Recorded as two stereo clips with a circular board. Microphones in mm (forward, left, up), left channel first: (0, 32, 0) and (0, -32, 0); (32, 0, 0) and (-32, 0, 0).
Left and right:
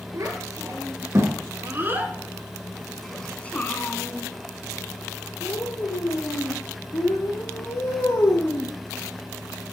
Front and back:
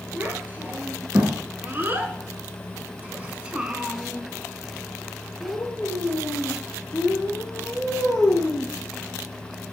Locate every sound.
0.1 s a child speaking: 120° right, 1.8 m; by 8.7 s 75° left, 3 m